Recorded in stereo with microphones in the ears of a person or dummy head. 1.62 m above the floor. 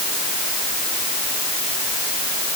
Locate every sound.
Only background noise.